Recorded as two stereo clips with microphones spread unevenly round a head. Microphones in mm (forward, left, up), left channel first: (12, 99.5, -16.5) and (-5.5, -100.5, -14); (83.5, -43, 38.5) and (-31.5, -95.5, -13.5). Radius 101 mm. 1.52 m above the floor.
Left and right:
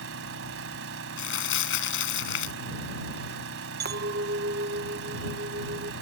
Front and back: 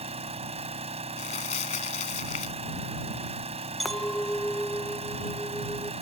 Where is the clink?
55° right.